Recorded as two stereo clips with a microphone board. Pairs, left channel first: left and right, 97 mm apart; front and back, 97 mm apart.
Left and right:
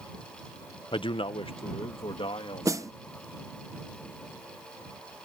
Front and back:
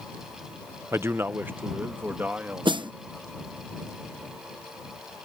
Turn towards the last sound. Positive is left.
turn(degrees=-145)